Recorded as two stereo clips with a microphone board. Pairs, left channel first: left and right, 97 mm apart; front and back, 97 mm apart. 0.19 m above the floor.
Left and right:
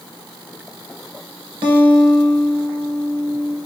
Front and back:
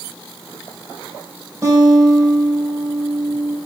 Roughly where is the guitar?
Behind right.